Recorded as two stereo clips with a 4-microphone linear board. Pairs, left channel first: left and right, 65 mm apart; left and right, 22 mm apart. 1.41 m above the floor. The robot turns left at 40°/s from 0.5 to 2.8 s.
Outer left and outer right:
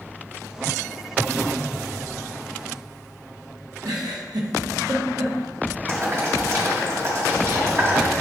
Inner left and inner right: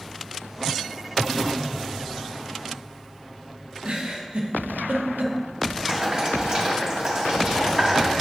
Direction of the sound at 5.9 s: 45° right (ahead or behind).